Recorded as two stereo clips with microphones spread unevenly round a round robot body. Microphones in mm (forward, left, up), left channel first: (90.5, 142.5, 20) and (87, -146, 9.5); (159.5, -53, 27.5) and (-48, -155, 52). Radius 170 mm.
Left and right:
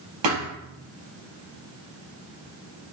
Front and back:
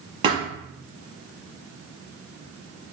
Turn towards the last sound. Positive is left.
turn(degrees=-85)